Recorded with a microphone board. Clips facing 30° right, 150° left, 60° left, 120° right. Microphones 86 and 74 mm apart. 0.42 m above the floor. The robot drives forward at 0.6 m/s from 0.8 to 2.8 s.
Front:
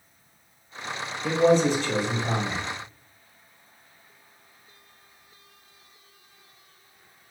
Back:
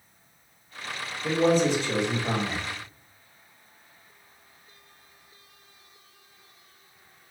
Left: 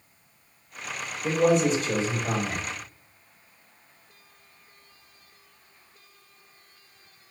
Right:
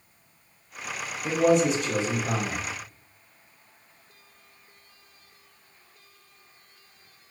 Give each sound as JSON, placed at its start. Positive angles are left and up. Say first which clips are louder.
{"t": 1.2, "sound": "a man speaking", "louder": "front 2 dB, even", "azimuth_deg": 65, "distance_m": 1.8}